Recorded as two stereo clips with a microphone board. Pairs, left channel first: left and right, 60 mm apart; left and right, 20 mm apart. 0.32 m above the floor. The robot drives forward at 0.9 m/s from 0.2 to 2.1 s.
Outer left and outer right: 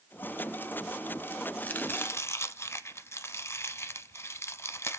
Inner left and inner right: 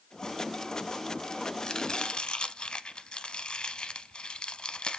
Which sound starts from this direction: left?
Chopping, at 1.6 s.